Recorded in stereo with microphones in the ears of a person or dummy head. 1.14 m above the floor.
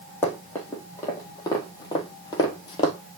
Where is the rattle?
I don't hear a rattle.